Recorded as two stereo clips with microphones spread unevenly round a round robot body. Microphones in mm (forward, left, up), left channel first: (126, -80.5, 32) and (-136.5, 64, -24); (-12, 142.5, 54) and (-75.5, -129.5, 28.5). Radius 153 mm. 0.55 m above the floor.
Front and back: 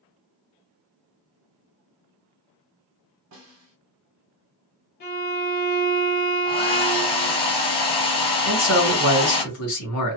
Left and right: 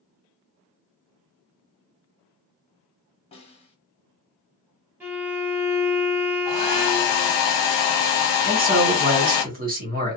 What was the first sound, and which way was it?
A snare drum, 145° left.